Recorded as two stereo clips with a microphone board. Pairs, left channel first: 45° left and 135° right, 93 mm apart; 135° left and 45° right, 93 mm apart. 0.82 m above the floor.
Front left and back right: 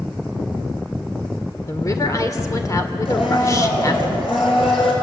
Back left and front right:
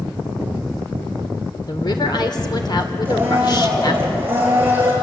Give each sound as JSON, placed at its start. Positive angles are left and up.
{"t": 1.7, "sound": "a woman speaking", "azimuth_deg": 100, "distance_m": 2.5}
{"t": 3.0, "sound": "a blender", "azimuth_deg": 20, "distance_m": 6.0}